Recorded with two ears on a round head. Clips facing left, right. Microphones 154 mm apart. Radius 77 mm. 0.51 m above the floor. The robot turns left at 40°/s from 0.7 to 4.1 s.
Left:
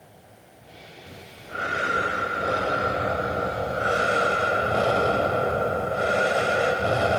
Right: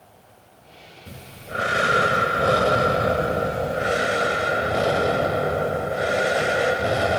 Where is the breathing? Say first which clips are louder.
Right 6 dB; 50° right, 1.5 m; by 7.2 s 170° right, 1.5 m.